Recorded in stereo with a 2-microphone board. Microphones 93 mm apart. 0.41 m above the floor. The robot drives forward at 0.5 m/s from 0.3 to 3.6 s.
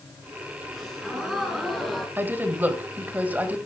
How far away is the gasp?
About 4.5 m.